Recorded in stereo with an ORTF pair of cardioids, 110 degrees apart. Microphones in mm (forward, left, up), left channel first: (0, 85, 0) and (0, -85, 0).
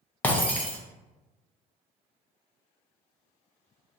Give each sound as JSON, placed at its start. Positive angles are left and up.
{"t": 0.2, "sound": "breaking glass", "azimuth_deg": 10, "distance_m": 0.6}